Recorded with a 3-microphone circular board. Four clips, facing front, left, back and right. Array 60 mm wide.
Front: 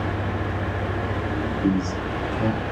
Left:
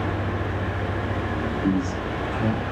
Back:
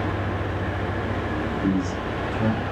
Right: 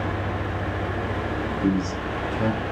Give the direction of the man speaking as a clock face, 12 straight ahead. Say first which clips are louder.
Right 1 dB, front 2 dB; 3 o'clock.